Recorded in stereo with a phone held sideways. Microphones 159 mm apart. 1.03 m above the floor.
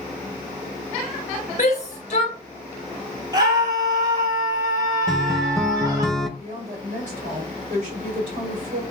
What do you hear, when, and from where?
1.6 s a shout: 50° left (ahead or behind), 1.6 m
3.3 s a scream: 25° right (ahead or behind), 2.5 m
5.1 s a guitar: centre (ahead or behind), 0.5 m
6.4 s a woman speaking: 50° right (ahead or behind), 1.6 m